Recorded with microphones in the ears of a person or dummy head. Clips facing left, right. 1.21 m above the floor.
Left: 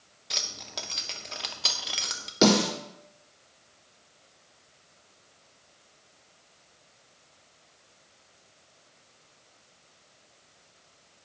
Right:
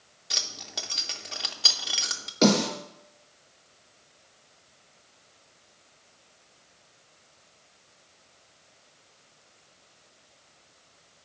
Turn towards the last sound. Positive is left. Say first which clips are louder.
# even
turn(degrees=30)  # may be behind; listen again after turning